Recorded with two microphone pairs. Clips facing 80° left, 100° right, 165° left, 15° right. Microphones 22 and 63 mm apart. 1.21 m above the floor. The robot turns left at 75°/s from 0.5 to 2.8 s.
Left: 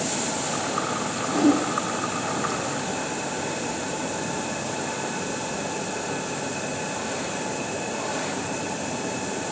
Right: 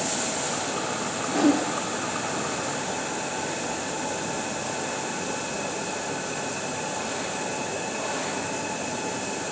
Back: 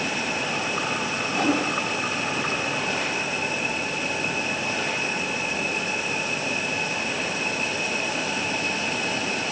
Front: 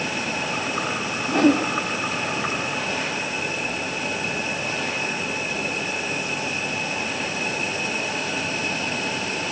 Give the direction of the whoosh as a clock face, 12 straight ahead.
12 o'clock.